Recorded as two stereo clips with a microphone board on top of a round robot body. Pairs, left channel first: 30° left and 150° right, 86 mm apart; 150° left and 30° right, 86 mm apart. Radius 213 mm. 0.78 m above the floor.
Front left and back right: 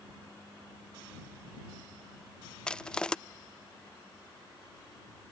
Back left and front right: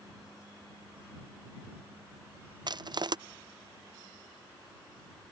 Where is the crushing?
50° right.